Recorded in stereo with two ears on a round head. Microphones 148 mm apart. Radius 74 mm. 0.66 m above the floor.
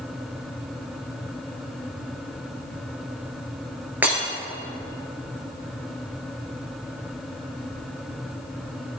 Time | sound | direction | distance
4.0 | breaking glass | 10° right (ahead or behind) | 4.5 m